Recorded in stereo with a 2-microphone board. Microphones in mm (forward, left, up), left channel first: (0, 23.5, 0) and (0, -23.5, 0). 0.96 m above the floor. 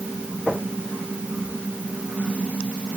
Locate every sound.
Only background noise.